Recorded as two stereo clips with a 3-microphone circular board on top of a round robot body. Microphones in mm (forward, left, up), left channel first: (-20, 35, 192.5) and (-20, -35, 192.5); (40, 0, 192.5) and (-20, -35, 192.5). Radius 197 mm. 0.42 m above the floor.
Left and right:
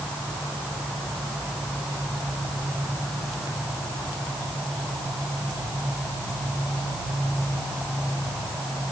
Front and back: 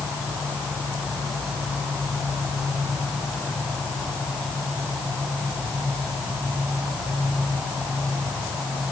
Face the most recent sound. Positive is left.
No sound to turn to.